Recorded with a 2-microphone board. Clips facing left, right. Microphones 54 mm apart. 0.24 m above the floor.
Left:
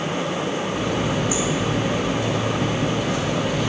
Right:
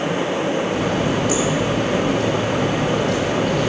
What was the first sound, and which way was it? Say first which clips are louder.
A running tap: right 3 dB; 85° right.